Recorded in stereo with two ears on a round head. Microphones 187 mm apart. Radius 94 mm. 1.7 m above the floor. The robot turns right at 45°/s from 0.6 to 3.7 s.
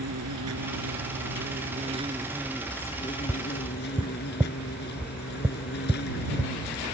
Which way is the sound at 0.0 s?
90° right.